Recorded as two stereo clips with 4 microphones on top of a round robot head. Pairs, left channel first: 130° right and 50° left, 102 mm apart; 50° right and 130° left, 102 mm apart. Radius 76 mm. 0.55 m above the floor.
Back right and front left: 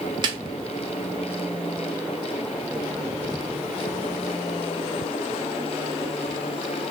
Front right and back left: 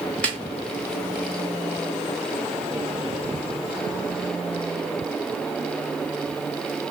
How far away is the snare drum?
About 1.2 m.